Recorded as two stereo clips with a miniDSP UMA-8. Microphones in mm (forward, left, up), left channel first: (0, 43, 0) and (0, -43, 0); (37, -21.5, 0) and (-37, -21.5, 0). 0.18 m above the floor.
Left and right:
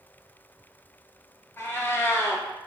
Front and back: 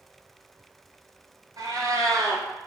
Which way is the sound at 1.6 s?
150° left.